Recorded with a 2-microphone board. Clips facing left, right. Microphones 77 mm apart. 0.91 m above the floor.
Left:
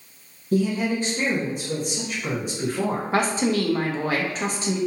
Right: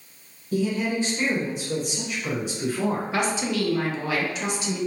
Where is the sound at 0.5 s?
50° left (ahead or behind), 1.0 m.